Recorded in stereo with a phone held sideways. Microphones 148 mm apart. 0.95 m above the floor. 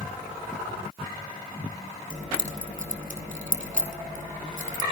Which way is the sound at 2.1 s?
55° right (ahead or behind).